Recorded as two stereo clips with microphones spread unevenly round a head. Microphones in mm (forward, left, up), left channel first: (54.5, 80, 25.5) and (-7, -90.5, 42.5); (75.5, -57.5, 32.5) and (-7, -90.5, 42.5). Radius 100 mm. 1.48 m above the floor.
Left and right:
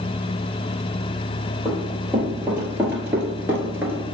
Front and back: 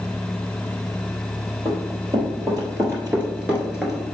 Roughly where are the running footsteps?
Behind.